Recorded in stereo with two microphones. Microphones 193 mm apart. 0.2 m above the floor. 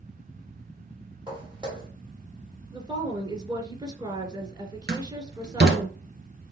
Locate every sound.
1.3 s footsteps: 25° right (ahead or behind), 3.5 m
2.7 s a woman speaking: 20° right (ahead or behind), 2.5 m
4.9 s a door slam: 55° right (ahead or behind), 1.9 m